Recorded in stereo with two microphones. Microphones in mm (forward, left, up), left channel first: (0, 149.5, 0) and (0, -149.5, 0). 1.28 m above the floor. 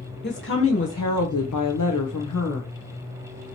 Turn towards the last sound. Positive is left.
turn(degrees=55)  # may be behind; listen again after turning